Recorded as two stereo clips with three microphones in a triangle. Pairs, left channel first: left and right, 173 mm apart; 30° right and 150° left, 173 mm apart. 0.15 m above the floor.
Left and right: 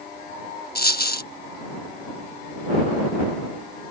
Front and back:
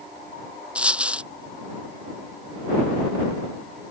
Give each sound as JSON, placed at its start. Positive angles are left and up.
{"t": 0.8, "sound": "a dropped coin", "azimuth_deg": 65}